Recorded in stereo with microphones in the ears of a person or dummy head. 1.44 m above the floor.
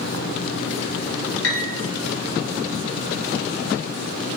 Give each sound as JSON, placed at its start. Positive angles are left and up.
{"t": 1.4, "sound": "a piano", "side_deg": 65, "distance_m": 0.6}